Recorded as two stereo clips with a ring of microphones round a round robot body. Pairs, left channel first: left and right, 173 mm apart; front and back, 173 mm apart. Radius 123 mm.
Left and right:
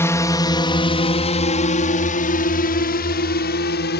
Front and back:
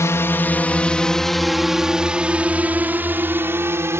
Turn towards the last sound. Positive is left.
turn(degrees=105)